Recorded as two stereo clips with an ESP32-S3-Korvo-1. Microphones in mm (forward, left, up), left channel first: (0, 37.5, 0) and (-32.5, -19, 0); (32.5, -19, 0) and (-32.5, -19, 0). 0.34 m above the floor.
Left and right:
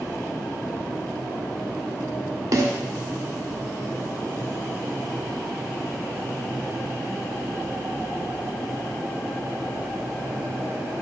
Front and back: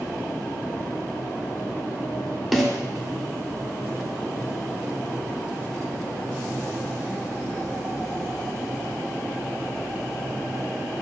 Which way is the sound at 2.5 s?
90° right.